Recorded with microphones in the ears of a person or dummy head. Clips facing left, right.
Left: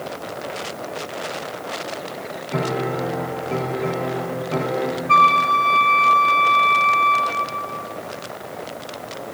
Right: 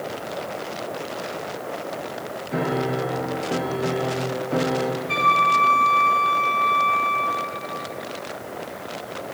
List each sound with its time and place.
2.5 s a piano: 10° right (ahead or behind), 1.1 m
5.1 s a flute: 10° right (ahead or behind), 0.9 m